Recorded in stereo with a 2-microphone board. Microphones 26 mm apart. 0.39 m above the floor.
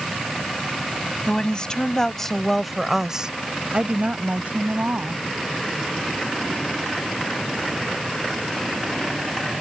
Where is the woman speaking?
35° left (ahead or behind); by 5.2 s 70° right (ahead or behind).